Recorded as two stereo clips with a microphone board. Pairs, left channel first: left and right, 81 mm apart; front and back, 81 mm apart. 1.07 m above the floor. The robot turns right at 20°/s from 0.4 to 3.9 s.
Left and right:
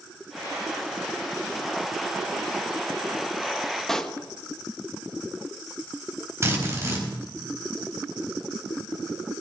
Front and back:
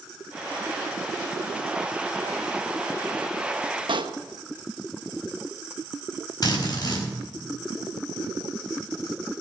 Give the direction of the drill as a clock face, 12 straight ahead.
1 o'clock.